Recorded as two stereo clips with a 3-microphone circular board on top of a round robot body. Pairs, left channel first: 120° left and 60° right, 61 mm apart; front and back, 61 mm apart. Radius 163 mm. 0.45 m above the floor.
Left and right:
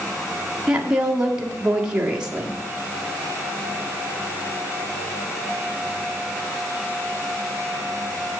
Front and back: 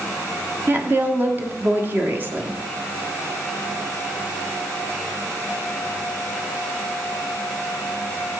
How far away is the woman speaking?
About 1.7 m.